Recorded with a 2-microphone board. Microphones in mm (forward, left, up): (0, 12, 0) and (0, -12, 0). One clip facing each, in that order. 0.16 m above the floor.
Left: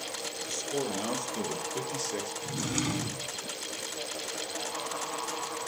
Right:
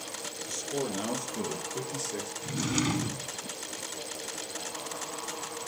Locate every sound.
0.5 s a man speaking: centre (ahead or behind), 4 m; by 2.3 s 25° left (ahead or behind), 3.5 m
2.4 s a drawer: 10° right (ahead or behind), 0.8 m